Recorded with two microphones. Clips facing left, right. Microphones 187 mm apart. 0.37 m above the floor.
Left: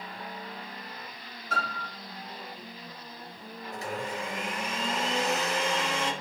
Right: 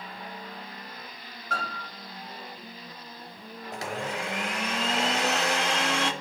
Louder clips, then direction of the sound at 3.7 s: Right 2 dB; 80° right.